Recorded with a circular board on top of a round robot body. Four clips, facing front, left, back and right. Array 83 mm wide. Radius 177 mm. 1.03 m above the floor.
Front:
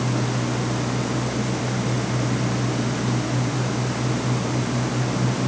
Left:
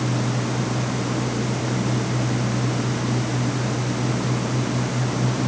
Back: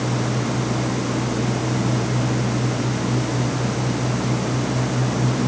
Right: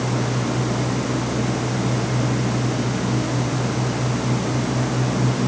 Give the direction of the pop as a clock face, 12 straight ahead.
No pop in this recording.